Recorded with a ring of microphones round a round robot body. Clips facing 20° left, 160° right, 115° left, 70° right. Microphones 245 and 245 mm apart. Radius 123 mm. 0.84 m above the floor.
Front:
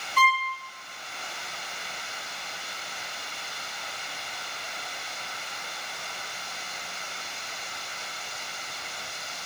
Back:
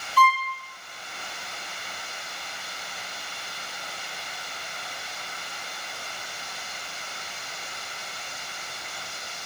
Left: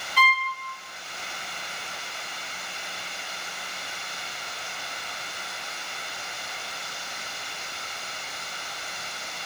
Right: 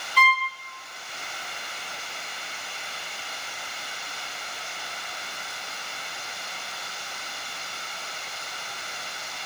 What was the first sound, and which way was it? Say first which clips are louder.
A violin: back 4 dB, right 1 dB; 10° right.